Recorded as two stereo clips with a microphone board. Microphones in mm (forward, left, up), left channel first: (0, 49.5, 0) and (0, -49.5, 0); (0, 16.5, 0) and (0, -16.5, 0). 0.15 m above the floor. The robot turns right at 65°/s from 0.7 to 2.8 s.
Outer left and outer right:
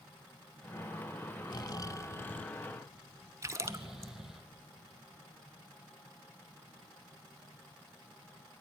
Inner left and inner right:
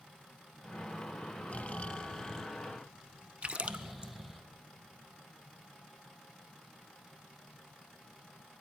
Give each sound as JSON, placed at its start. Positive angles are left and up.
{"t": 1.5, "sound": "snoring", "azimuth_deg": 100, "distance_m": 1.1}
{"t": 3.4, "sound": "a splash", "side_deg": -30, "distance_m": 1.2}